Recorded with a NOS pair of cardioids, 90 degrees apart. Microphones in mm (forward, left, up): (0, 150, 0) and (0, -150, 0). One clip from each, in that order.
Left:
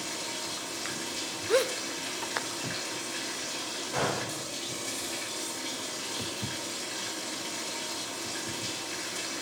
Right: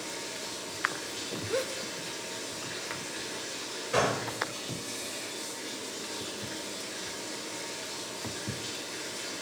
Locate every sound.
0.0 s running water: 45° left, 3 m
1.5 s a gasp: 35° left, 0.6 m
3.9 s a gunshot: 55° right, 2.5 m